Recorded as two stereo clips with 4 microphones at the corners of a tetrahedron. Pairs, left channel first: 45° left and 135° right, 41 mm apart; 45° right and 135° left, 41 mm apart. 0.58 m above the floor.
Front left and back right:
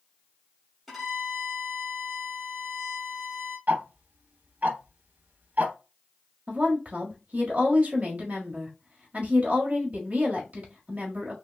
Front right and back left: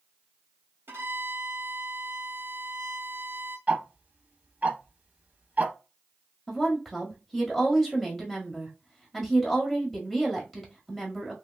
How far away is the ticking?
About 0.7 m.